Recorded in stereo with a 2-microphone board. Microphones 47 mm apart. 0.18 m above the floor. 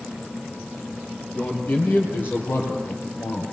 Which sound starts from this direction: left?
A man speaking, at 1.4 s.